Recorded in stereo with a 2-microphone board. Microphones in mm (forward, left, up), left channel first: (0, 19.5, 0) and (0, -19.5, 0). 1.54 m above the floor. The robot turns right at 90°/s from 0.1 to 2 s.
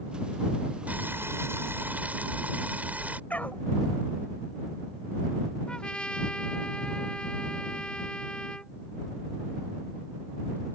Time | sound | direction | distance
0.9 | boiling | 140° right | ?
3.3 | a dog barking | 40° left (ahead or behind) | ?
5.7 | a trumpet | 25° left (ahead or behind) | ?